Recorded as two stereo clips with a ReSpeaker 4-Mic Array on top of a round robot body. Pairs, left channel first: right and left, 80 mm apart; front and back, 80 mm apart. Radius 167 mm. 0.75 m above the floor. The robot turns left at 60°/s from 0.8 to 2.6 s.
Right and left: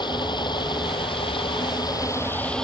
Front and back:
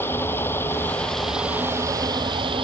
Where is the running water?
65° right; by 2.6 s 170° right.